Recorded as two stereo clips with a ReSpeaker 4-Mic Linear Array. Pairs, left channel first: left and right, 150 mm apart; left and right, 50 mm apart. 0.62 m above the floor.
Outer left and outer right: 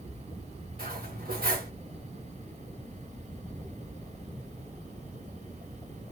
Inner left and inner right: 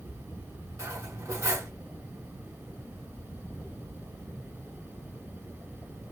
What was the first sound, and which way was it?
Cutlery clinking, 80° right.